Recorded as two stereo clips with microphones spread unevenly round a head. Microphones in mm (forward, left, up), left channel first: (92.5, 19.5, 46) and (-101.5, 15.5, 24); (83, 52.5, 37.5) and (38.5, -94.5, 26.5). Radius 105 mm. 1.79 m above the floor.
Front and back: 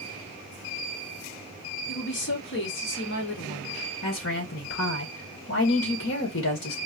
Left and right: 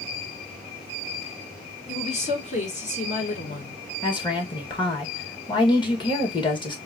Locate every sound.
1.9 s a woman speaking: 30° left, 1.8 m
4.0 s a woman speaking: 15° left, 1.9 m